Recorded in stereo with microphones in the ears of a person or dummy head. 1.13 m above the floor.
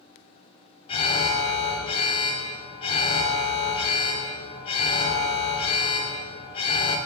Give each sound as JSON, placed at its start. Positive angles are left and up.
{"t": 0.9, "sound": "an alarm", "side_deg": 35, "distance_m": 3.0}